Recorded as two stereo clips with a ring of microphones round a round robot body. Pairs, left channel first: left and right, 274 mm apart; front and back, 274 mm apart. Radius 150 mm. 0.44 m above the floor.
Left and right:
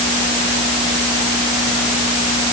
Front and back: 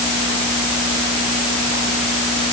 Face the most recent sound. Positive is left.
No sound to turn to.